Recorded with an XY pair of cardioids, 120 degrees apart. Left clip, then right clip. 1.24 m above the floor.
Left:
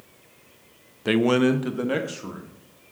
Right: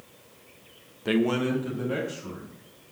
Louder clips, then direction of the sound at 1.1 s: Left 5 dB; 25° left.